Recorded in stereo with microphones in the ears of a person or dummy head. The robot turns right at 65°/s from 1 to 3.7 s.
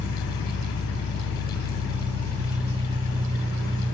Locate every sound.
0.0 s an engine running: 85° left, 2.5 m; by 3.9 s 100° right, 2.5 m